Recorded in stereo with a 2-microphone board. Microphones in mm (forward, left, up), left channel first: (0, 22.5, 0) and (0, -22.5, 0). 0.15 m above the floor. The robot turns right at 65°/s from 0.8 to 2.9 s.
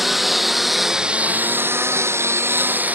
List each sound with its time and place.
0.0 s a lawn mower: 5° right (ahead or behind); by 3.0 s 40° right (ahead or behind)